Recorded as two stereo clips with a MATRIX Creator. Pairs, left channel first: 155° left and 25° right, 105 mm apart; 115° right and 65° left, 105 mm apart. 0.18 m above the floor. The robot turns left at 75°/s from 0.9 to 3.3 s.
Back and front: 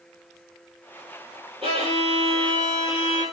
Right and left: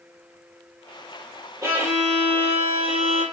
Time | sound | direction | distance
1.6 | a violin | straight ahead | 5.5 m